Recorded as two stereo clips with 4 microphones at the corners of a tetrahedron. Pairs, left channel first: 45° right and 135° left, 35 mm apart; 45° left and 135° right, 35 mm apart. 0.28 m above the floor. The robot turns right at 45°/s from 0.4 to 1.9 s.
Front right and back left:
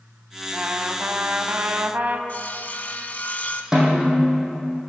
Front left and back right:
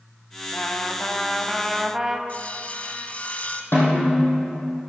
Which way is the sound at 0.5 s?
80° left.